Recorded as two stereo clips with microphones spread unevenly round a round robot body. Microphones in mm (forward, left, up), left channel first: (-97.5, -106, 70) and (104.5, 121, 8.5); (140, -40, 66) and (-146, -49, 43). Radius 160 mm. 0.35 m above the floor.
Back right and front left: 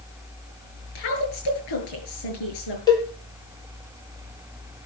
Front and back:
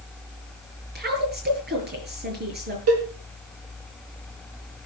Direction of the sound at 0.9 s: 125° right.